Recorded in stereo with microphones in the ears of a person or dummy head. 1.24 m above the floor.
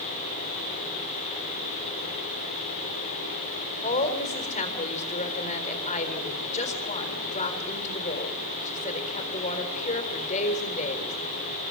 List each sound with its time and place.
3.8 s a woman speaking: 40° left (ahead or behind), 3.5 m